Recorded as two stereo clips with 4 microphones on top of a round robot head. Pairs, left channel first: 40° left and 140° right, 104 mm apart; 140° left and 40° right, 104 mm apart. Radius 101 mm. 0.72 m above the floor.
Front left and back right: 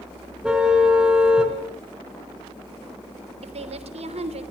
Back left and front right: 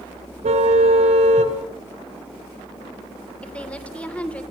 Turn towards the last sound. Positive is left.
turn(degrees=-140)